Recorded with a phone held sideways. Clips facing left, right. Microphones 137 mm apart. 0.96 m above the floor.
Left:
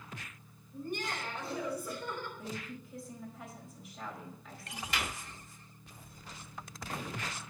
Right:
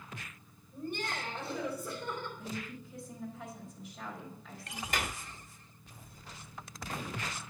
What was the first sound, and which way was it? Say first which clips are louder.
Laughter: even; 30° right (ahead or behind).